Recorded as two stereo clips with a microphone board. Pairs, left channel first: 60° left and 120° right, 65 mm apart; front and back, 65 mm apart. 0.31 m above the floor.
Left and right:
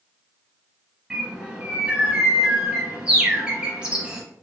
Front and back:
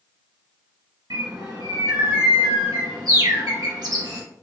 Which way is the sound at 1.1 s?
165° left.